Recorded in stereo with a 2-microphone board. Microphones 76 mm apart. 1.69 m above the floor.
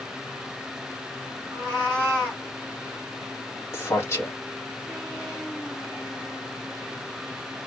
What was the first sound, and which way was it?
A cat meowing, 20° left (ahead or behind).